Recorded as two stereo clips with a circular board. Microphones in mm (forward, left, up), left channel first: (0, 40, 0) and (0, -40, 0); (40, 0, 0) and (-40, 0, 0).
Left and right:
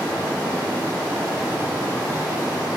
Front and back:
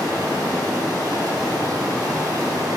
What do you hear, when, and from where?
0.0 s running water: 150° right, 1.0 m